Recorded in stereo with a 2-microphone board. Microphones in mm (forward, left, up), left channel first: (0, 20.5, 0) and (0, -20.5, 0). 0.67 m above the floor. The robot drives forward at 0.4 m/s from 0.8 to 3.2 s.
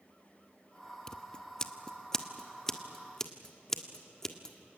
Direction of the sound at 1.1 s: 20° left (ahead or behind).